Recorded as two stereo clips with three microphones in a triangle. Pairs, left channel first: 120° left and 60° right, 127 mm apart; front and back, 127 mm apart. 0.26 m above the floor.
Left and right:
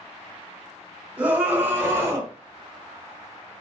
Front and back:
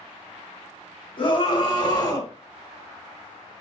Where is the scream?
15° left, 1.6 m; by 2.3 s 15° right, 1.4 m.